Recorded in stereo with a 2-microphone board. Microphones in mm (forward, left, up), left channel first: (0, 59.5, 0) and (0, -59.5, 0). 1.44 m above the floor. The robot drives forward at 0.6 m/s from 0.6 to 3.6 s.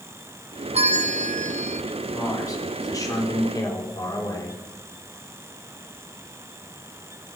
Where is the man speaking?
25° left (ahead or behind), 5 m; by 4.6 s 35° left (ahead or behind), 4.5 m.